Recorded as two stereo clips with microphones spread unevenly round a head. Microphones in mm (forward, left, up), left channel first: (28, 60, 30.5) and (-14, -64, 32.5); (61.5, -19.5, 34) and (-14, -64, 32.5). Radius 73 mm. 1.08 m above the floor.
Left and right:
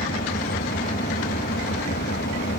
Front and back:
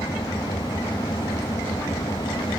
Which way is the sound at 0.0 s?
95° left.